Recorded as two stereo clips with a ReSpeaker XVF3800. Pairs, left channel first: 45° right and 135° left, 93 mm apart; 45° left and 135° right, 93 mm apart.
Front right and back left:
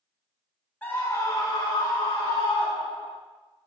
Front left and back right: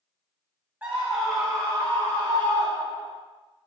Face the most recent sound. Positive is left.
turn(degrees=-20)